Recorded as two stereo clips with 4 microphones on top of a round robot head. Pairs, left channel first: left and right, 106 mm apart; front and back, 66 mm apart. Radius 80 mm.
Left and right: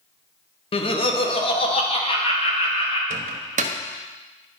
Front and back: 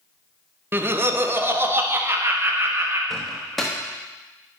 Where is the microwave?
85° right, 0.8 m.